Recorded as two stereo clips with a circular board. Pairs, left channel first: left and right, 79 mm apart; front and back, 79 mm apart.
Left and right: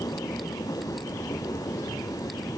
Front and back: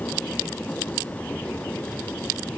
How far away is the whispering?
No whispering in this recording.